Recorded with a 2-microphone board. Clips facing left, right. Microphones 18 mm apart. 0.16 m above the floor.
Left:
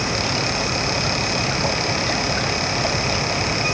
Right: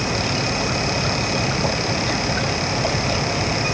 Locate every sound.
Only background noise.